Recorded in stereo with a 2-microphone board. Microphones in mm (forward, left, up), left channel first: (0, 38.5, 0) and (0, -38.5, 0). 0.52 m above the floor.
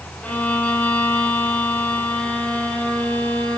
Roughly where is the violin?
Centre.